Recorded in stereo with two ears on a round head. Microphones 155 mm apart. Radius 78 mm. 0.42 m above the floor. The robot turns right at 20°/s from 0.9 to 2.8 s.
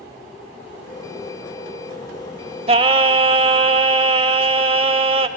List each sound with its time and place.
2.7 s singing: 35° right (ahead or behind), 0.6 m; by 5.3 s 30° right (ahead or behind), 0.6 m